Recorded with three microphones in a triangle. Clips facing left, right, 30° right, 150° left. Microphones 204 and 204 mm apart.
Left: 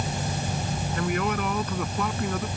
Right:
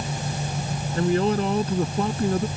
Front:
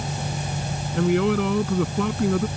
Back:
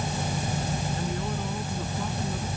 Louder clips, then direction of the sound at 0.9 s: Right 7 dB, front 11 dB; 30° right.